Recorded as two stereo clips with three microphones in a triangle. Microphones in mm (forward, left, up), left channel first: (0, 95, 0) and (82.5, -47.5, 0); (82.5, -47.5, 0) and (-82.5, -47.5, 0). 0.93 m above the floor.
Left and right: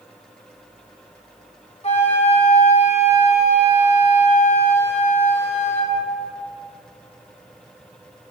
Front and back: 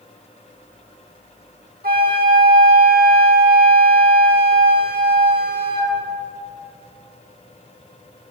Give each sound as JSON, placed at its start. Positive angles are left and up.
{"t": 1.8, "sound": "a flute", "azimuth_deg": 165, "distance_m": 1.6}